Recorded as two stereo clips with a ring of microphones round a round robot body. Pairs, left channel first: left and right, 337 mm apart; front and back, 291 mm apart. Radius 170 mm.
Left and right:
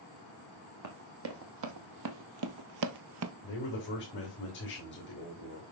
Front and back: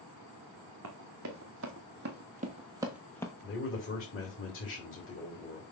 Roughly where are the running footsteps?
Behind right.